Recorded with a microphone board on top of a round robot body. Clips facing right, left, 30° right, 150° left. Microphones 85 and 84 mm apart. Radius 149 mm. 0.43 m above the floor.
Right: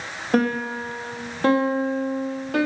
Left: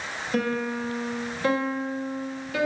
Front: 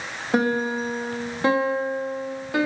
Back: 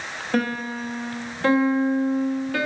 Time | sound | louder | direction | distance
0.3 | a piano | right 5 dB, front 3 dB | 100° right | 1.4 m